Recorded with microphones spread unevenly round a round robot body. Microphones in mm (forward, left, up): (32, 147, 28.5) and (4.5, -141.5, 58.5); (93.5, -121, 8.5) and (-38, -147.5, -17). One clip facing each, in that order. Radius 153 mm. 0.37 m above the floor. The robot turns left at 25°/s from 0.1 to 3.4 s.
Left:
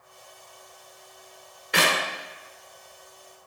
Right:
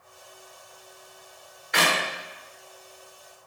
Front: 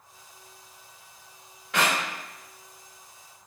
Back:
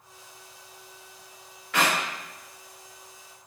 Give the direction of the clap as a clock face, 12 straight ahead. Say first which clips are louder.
Left 1 dB, back 1 dB; 9 o'clock.